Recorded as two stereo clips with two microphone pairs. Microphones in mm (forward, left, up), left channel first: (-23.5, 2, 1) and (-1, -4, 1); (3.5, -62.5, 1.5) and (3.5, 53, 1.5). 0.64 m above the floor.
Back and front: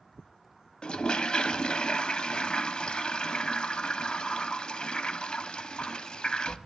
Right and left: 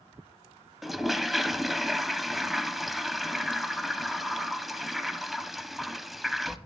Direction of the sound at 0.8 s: Straight behind.